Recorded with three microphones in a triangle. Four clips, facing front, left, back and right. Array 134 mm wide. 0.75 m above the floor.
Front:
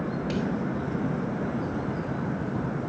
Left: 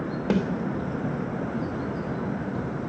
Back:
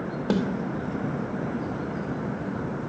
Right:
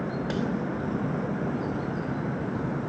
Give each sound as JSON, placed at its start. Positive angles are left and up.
{"t": 0.3, "sound": "a snare drum", "azimuth_deg": 135, "distance_m": 2.5}